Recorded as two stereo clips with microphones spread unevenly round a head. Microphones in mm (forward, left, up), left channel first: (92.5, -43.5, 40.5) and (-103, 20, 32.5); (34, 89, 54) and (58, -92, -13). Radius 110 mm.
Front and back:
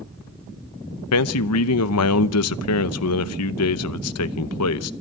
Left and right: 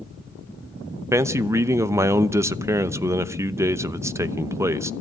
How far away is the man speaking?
About 0.9 m.